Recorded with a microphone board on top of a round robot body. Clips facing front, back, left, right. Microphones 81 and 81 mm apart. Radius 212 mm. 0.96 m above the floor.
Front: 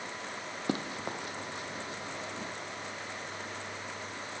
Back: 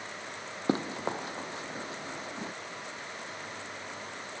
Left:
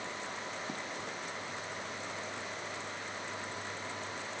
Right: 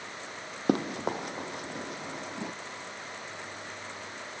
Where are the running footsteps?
115° right.